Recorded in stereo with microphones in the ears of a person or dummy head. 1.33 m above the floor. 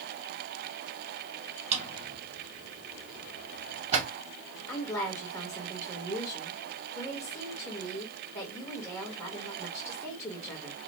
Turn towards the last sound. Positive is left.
turn(degrees=15)  # may be behind; listen again after turning